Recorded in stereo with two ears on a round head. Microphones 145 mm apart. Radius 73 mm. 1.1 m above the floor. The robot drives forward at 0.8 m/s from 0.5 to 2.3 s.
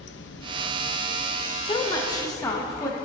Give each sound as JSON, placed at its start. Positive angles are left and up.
{"t": 0.0, "sound": "running water", "side_deg": 80, "distance_m": 0.8}
{"t": 1.6, "sound": "a woman speaking", "side_deg": 30, "distance_m": 1.1}